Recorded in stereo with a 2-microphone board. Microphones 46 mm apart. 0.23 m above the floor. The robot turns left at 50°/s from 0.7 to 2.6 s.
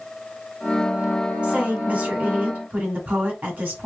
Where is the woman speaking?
35° right, 1.7 m; by 3.9 s 95° right, 1.7 m.